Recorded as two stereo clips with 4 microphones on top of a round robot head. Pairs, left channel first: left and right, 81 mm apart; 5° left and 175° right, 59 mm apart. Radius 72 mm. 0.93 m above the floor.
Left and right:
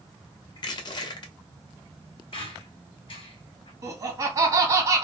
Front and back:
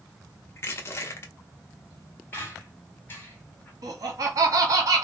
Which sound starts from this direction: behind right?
Laughter, at 3.8 s.